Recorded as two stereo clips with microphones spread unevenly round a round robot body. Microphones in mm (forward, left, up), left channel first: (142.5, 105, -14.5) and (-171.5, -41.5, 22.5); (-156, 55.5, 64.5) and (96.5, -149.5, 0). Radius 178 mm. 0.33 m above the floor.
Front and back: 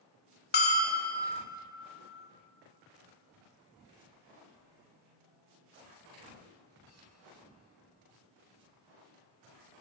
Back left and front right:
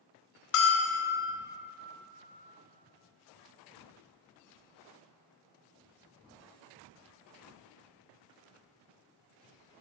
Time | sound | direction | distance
0.5 | a bell | 80° left | 1.1 m